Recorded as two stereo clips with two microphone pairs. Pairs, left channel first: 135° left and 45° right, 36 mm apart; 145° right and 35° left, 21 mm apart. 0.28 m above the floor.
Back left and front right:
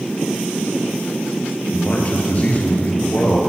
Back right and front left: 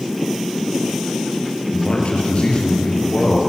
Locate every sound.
1.7 s a man speaking: 175° right, 6.5 m; by 3.4 s straight behind, 7.5 m